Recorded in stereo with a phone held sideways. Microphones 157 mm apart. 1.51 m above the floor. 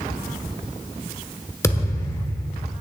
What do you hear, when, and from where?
1.6 s a thud: 20° left (ahead or behind), 1.2 m